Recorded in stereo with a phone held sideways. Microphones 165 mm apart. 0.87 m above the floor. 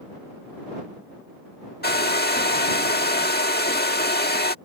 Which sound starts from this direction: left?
A hair dryer, at 1.8 s.